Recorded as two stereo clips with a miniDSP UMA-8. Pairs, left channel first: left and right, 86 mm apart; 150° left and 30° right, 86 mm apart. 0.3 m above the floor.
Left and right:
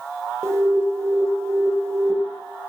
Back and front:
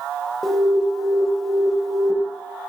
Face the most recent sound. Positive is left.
turn(degrees=-120)